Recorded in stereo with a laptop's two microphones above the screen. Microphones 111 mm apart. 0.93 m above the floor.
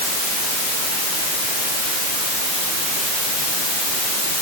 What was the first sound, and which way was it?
Only background noise.